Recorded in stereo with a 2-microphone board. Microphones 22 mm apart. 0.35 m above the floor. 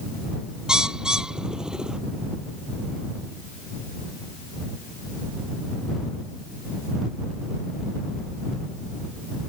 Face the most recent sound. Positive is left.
turn(degrees=-40)  # may be behind; listen again after turning